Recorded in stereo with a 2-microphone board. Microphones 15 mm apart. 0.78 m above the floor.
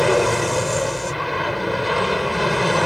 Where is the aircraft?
5° left (ahead or behind).